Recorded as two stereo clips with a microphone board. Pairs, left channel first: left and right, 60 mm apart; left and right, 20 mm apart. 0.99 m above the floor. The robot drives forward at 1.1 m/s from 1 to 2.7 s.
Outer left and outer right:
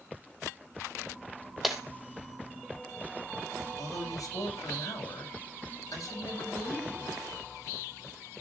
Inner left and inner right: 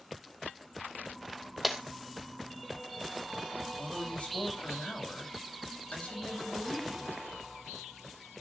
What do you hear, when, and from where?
1.6 s breaking glass: centre (ahead or behind), 1.8 m
3.8 s a man speaking: 85° left, 6 m